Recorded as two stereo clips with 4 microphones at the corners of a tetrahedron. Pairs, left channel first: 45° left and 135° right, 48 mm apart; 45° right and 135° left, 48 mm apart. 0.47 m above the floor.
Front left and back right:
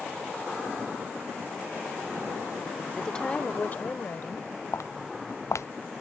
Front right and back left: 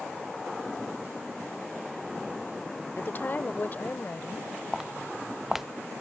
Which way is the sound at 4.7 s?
50° left.